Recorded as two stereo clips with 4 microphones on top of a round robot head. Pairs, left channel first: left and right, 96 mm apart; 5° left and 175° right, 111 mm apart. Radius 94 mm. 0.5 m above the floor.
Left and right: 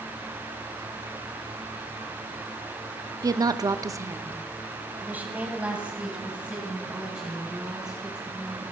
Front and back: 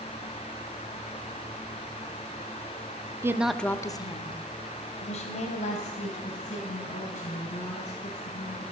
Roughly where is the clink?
No clink in this recording.